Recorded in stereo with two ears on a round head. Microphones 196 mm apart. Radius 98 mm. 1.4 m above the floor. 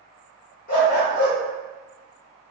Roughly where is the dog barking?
Left.